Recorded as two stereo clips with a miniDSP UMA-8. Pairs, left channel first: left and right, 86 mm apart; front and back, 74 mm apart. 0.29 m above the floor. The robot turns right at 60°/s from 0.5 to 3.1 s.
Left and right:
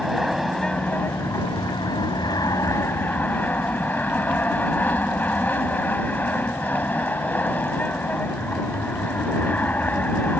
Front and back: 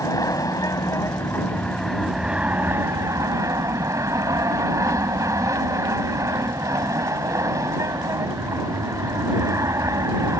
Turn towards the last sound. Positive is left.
turn(degrees=155)